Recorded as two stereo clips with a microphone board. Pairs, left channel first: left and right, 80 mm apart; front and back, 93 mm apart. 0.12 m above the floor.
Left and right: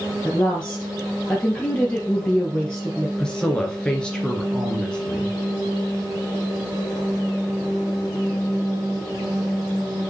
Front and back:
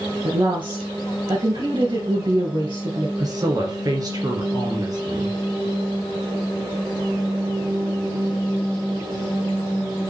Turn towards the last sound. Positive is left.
turn(degrees=165)